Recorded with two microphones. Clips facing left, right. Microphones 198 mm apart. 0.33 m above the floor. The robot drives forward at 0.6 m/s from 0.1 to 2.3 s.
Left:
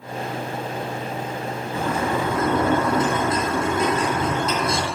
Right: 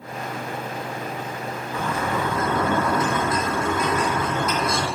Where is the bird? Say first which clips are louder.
Left 2 dB; 30° left (ahead or behind), 3.5 m.